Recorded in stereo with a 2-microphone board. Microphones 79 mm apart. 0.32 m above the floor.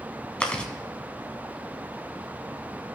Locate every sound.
0.4 s chewing: 15° left (ahead or behind), 1.3 m